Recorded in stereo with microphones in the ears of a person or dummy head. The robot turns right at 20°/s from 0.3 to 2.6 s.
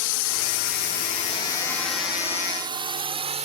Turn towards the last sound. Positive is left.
turn(degrees=-30)  # may be behind; listen again after turning